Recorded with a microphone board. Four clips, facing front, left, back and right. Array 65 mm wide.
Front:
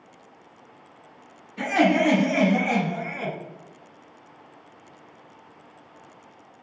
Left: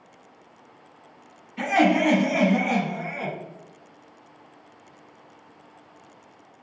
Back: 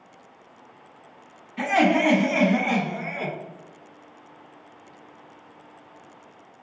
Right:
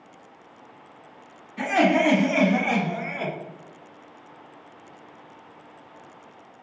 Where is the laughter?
160° left, 1.5 m; by 3.3 s 140° right, 1.6 m.